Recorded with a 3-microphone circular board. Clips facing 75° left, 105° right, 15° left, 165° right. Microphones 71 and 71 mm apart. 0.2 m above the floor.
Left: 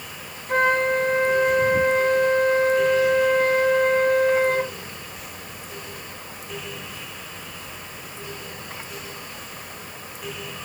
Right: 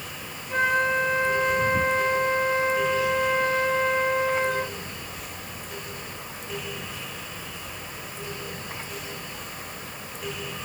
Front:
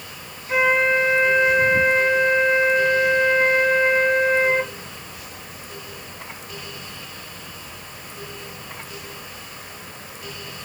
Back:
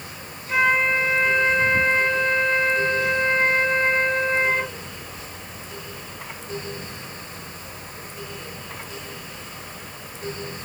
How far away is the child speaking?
No child speaking in this recording.